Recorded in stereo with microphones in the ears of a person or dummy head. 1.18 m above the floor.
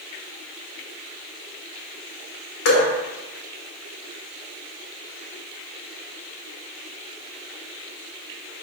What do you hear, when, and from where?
2.6 s dripping: 75° left (ahead or behind), 2.5 m